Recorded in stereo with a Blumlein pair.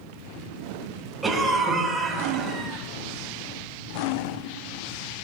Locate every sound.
1.2 s a cough: 10° right, 5.5 m